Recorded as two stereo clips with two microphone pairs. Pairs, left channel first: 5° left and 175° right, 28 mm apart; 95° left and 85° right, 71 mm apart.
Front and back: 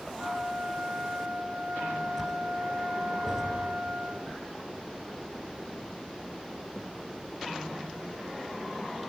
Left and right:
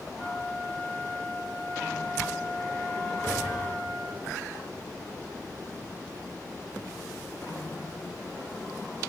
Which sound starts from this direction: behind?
A flute, at 0.2 s.